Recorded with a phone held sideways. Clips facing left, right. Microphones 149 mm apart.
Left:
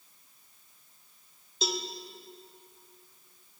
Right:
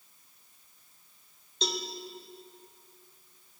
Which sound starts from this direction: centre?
A cowbell, at 1.6 s.